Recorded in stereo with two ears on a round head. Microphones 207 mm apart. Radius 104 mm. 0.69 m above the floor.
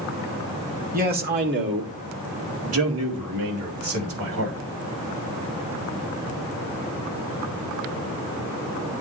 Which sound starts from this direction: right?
A man speaking, at 0.9 s.